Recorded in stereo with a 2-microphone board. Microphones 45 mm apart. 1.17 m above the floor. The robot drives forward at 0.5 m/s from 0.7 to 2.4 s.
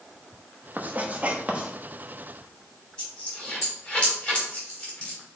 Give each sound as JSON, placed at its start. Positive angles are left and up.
{"t": 0.8, "sound": "writing", "side_deg": -40, "distance_m": 0.8}
{"t": 3.0, "sound": "a dropped coin", "side_deg": 20, "distance_m": 3.0}